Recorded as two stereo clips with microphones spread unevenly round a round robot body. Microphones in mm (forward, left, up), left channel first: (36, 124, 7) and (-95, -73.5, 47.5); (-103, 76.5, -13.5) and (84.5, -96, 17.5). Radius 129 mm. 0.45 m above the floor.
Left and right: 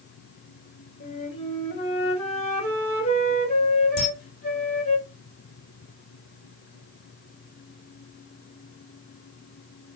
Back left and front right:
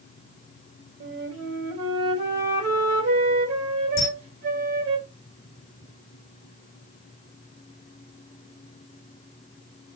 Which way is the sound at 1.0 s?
5° left.